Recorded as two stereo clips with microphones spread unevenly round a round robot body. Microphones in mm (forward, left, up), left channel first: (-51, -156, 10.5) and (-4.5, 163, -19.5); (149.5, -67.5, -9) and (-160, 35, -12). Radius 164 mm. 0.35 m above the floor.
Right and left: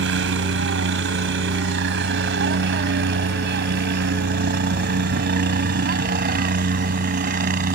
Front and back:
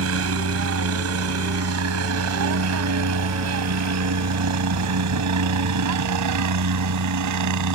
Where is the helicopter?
125° left; by 7.8 s 140° left.